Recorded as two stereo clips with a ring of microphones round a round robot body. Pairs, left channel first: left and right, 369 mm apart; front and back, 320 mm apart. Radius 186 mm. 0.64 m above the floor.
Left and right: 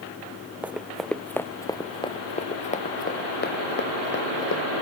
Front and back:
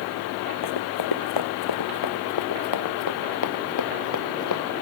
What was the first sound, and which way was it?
Running footsteps, 5° right.